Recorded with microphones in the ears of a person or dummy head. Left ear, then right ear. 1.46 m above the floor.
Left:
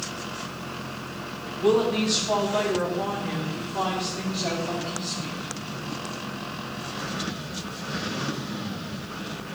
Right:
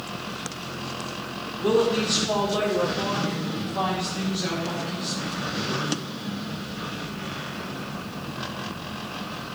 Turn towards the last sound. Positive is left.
turn(degrees=-5)  # may be behind; listen again after turning